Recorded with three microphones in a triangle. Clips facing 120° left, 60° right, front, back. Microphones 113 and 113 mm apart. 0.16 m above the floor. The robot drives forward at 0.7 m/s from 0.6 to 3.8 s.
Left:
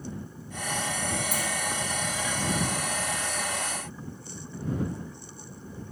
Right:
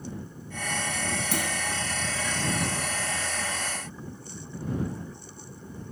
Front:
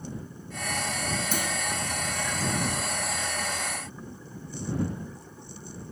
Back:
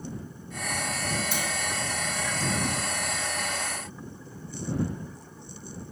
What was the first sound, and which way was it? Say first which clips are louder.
A clunk: right 2 dB, front 1 dB; 45° right.